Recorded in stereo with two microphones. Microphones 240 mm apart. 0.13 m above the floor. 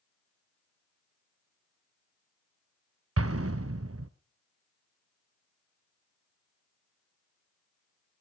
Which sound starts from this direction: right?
An explosion, at 3.2 s.